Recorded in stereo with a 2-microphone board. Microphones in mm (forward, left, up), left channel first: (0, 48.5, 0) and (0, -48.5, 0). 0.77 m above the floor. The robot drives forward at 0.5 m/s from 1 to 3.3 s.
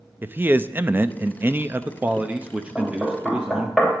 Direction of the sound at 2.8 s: 5° right (ahead or behind).